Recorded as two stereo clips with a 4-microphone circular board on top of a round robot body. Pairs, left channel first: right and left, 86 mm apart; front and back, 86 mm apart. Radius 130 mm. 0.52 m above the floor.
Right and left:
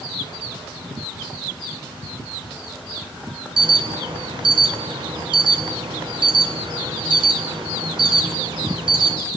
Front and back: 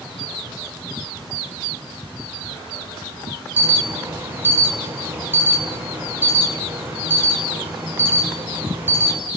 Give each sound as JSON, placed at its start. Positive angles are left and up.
{"t": 3.6, "sound": "an alarm", "azimuth_deg": 115, "distance_m": 7.0}